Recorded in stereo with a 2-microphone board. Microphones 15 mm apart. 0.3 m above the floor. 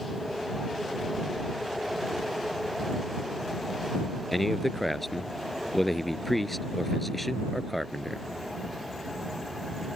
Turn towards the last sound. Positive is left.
turn(degrees=10)  # may be behind; listen again after turning